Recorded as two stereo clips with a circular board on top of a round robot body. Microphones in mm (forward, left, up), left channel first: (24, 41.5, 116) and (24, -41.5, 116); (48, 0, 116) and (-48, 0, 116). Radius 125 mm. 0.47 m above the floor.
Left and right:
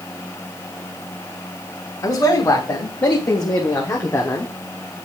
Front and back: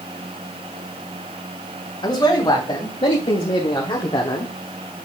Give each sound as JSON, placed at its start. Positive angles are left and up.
{"t": 2.0, "sound": "a man speaking", "azimuth_deg": 45, "distance_m": 4.0}